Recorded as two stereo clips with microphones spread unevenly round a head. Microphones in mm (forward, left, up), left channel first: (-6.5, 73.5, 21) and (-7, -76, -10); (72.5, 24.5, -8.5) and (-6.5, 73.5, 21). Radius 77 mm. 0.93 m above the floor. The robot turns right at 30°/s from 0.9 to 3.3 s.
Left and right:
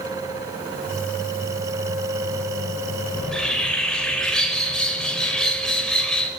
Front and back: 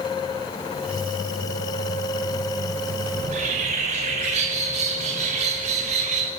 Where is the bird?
170° left, 4.5 m; by 6.3 s 175° left, 4.5 m.